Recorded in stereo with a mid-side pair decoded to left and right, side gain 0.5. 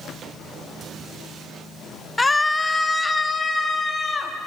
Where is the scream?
15° left, 0.9 m; by 4.3 s 20° left, 4.5 m.